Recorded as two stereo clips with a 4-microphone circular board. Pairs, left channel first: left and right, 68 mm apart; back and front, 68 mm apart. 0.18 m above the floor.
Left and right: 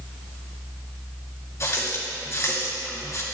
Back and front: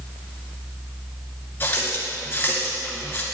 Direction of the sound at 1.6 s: 125° left.